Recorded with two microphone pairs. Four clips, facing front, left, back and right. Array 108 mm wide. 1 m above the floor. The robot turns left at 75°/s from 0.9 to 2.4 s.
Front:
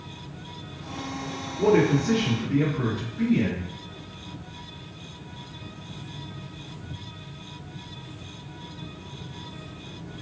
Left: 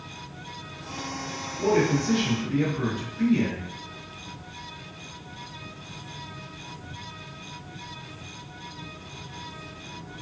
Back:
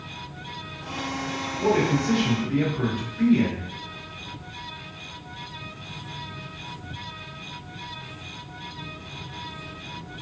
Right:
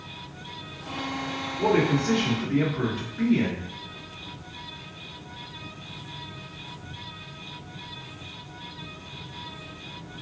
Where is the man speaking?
30° right, 1.8 m; by 3.6 s 90° right, 1.8 m.